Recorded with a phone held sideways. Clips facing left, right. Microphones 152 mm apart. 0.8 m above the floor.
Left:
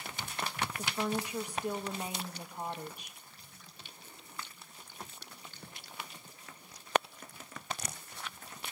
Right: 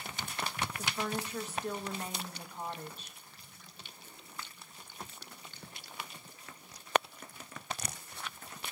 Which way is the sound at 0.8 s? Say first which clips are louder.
Left 3 dB; 15° left (ahead or behind).